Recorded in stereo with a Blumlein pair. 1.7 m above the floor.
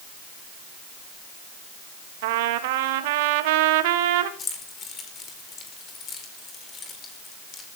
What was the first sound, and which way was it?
A trumpet, 50° right.